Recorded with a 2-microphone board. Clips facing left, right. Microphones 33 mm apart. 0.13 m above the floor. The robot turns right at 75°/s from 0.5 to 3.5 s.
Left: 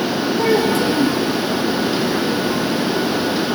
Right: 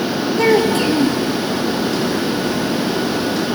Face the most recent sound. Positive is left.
turn(degrees=145)